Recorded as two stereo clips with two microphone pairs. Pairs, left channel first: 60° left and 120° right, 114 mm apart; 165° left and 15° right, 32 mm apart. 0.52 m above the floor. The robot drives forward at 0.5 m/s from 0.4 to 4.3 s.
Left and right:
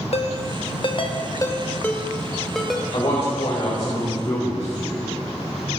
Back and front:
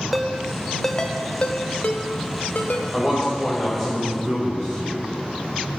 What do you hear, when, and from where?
0.1 s a ringtone: 75° left, 0.7 m; by 2.8 s 150° left, 1.2 m
2.9 s a man speaking: 85° left, 1.9 m; by 5.1 s 110° left, 2 m